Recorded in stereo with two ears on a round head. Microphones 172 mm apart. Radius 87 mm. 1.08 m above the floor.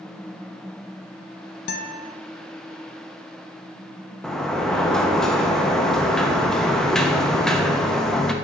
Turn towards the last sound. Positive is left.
turn(degrees=0)  # may be behind; listen again after turning